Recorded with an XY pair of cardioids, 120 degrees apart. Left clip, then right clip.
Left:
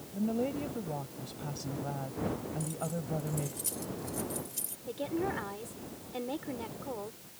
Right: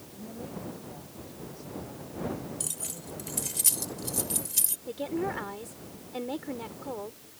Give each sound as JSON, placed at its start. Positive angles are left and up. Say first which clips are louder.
{"t": 0.1, "sound": "a woman speaking", "louder": "left 9 dB", "azimuth_deg": 70}
{"t": 2.6, "sound": "keys jangling", "louder": "left 1 dB", "azimuth_deg": -65}
{"t": 4.9, "sound": "a woman speaking", "louder": "left 2 dB", "azimuth_deg": -10}